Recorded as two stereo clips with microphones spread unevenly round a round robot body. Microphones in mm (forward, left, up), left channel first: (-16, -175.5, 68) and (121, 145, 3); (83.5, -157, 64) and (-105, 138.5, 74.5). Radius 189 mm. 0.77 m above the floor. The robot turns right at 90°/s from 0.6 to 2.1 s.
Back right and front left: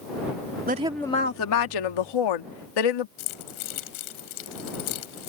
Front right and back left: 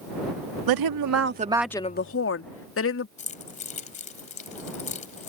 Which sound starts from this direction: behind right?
Keys jangling, at 3.2 s.